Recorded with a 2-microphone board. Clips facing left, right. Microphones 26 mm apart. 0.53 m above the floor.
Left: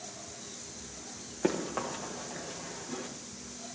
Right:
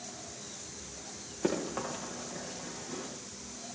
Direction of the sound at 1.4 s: 15° left (ahead or behind).